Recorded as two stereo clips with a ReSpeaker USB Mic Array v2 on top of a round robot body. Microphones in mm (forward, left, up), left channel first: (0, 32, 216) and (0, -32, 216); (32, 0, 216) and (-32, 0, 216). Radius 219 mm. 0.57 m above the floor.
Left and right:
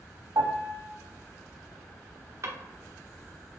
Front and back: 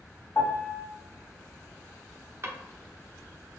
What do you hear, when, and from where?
0.3 s a piano: 55° right, 0.7 m
2.4 s a drawer: 130° right, 0.8 m